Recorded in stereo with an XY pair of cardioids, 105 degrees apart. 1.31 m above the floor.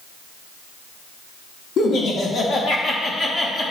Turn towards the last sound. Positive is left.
turn(degrees=30)